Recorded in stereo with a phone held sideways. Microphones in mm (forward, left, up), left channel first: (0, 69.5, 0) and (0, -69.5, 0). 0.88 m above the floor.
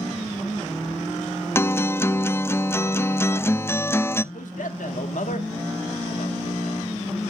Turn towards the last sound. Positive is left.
turn(degrees=75)  # may be behind; listen again after turning